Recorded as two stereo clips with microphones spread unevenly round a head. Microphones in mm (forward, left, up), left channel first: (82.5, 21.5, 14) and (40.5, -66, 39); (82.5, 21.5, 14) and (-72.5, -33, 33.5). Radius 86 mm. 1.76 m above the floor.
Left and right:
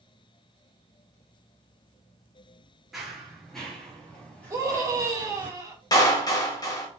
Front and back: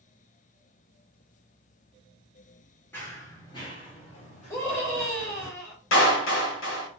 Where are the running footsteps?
60° right, 1.9 m; by 5.5 s 15° right, 3 m.